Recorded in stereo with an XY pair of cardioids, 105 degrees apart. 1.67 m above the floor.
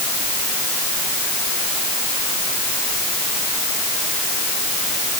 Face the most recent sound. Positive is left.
No sound to turn to.